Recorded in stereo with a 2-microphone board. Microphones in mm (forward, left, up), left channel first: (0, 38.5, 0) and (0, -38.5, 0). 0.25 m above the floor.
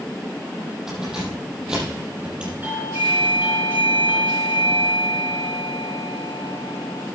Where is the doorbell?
25° right (ahead or behind), 4.5 m.